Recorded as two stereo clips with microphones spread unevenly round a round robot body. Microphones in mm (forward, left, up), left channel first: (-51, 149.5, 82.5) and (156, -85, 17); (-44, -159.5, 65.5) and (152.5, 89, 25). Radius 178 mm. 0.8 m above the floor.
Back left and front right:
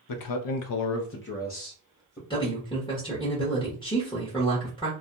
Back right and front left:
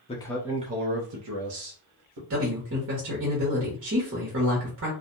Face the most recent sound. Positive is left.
turn(degrees=50)